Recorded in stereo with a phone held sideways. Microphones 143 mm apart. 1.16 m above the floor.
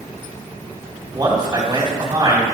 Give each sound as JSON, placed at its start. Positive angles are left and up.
{"t": 1.1, "sound": "a man speaking", "side_deg": -30, "distance_m": 3.0}